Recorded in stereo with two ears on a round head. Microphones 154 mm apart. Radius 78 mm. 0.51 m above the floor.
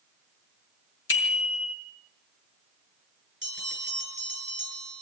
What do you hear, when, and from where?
1.1 s a bicycle bell: 80° left, 4 m
3.4 s a bell: 10° left (ahead or behind), 8.5 m